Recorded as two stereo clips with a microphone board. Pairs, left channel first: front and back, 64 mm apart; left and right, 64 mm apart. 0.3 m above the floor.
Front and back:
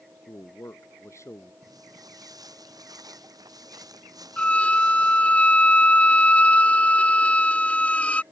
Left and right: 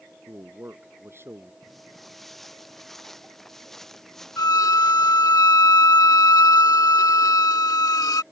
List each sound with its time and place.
0.3 s a man speaking: 40° right
1.6 s footsteps: straight behind; by 5.4 s 175° left
4.4 s a violin: 70° left